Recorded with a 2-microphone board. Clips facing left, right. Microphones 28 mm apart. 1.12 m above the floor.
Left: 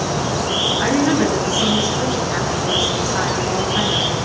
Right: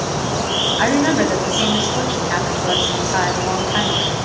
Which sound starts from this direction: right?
A woman speaking, at 0.8 s.